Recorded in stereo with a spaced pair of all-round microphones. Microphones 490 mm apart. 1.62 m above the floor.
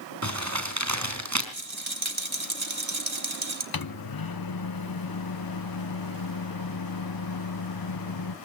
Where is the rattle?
70° right (ahead or behind), 2.0 m.